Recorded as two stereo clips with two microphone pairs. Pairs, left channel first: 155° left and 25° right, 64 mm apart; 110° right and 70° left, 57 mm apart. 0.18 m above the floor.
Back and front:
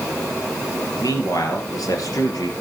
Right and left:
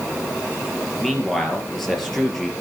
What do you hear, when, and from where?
1.0 s a man speaking: 165° left, 4 m